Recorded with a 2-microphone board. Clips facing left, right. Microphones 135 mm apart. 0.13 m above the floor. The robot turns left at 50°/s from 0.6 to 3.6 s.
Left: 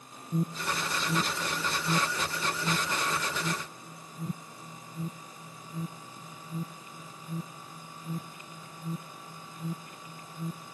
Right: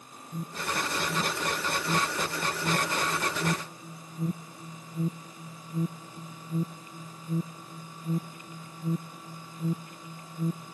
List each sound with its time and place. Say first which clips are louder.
0.3 s an alarm: left 2 dB; 45° left (ahead or behind); by 10.7 s 40° right (ahead or behind)